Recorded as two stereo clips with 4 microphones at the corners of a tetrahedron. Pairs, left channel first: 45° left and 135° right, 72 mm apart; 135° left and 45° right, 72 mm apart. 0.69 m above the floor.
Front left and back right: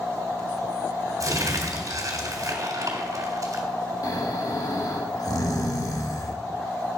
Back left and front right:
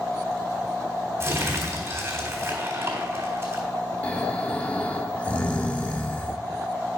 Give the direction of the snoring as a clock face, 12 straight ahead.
10 o'clock.